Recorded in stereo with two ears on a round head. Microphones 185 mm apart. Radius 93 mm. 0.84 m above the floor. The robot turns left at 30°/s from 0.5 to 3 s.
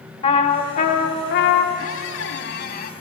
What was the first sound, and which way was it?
A trumpet, 150° left.